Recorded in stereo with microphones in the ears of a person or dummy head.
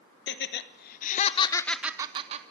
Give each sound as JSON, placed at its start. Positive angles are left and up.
{"t": 0.3, "sound": "laughter", "side_deg": 70, "distance_m": 1.4}